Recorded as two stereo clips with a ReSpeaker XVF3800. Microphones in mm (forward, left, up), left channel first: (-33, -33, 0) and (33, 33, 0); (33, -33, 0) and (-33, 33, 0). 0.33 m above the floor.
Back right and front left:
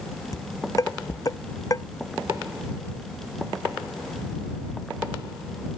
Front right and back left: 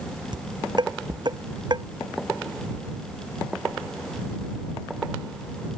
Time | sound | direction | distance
0.3 | dishes clattering | 175° left | ?